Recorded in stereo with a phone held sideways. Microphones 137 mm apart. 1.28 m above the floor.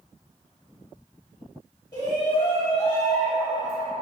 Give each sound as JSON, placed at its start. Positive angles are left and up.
{"t": 1.9, "sound": "a shout", "side_deg": 25, "distance_m": 1.8}